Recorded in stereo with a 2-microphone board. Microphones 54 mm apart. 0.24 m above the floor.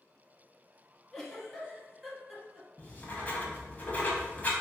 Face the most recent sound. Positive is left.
turn(degrees=35)  # may be behind; listen again after turning